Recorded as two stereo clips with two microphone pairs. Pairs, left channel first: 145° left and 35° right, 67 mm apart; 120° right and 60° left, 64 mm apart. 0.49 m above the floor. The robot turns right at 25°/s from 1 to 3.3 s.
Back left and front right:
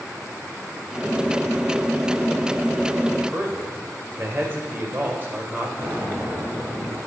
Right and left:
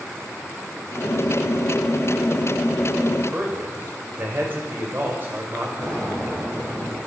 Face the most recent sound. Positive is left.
turn(degrees=20)